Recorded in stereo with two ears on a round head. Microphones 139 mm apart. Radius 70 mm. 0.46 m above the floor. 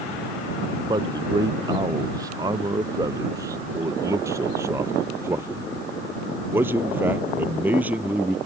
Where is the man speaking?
25° right (ahead or behind); by 8.4 s 10° right (ahead or behind).